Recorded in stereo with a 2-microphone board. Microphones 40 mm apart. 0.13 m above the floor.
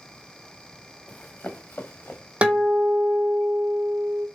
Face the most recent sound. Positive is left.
turn(degrees=-35)  # may be behind; listen again after turning